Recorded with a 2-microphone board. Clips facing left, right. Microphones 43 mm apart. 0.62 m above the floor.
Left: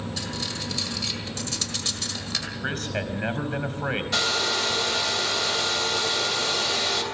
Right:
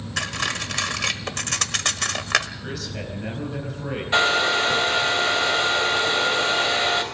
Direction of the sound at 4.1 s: 30° right (ahead or behind).